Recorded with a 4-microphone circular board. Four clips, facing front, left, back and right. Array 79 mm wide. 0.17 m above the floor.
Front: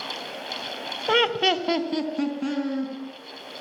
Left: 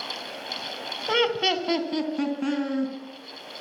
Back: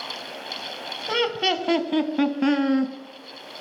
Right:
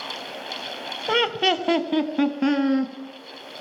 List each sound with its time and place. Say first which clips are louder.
1.1 s laughter: right 2 dB, front 2 dB; 25° right, 1.1 m; by 2.9 s 145° right, 1.8 m